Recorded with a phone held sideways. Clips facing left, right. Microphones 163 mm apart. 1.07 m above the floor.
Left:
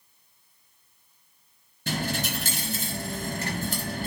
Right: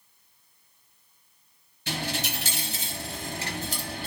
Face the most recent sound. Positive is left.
turn(degrees=50)  # may be behind; listen again after turning